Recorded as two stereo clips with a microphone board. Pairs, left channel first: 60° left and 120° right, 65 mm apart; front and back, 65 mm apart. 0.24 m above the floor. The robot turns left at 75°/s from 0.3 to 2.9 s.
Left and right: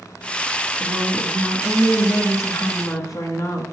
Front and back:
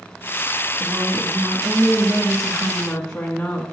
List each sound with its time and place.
0.8 s a woman speaking: 130° right, 2 m; by 3.6 s 75° left, 2 m